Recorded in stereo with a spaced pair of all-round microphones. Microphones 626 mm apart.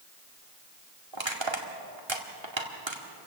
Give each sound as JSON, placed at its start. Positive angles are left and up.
{"t": 1.1, "sound": "crushing", "side_deg": -45, "distance_m": 2.0}